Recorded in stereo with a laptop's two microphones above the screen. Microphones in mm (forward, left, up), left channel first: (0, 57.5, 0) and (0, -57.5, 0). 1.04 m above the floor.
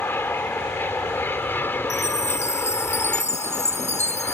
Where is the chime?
85° left.